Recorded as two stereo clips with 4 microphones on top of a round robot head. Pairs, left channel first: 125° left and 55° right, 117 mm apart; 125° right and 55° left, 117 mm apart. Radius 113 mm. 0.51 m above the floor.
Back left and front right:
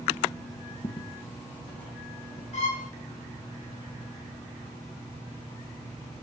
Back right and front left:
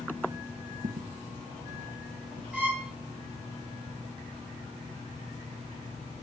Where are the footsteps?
70° left, 0.9 m; by 2.4 s 75° left, 2.5 m.